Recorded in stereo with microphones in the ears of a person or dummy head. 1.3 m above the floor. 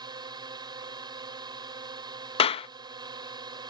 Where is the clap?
30° left (ahead or behind).